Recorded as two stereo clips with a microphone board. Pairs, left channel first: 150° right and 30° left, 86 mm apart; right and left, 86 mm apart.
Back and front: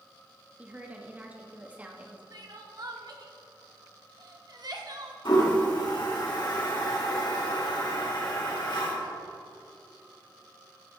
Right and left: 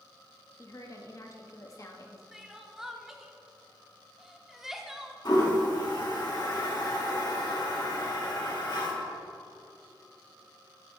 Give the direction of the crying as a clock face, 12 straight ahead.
12 o'clock.